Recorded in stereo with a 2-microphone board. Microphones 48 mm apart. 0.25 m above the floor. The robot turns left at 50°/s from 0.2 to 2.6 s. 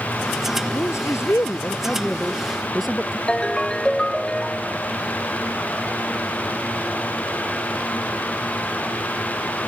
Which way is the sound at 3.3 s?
15° left (ahead or behind).